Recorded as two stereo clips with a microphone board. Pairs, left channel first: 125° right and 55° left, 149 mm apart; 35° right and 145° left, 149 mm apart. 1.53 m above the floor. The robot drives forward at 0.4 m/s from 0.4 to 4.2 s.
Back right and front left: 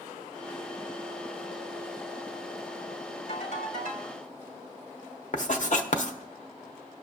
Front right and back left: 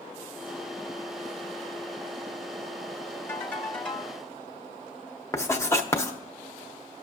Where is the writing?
105° right, 0.8 m.